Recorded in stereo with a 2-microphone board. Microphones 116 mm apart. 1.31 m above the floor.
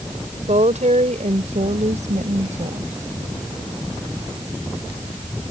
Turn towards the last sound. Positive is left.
turn(degrees=-85)